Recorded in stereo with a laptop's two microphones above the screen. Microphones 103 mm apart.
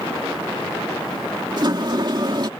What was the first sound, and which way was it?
A sliding door, 45° right (ahead or behind).